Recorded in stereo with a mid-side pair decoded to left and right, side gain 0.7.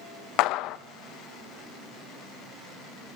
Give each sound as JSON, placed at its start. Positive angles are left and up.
{"t": 0.4, "sound": "a clap", "azimuth_deg": 60, "distance_m": 1.1}